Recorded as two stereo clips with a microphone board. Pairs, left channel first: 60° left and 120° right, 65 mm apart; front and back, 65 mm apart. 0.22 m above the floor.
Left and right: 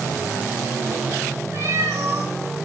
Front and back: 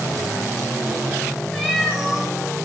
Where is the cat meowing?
75° right, 4.5 m.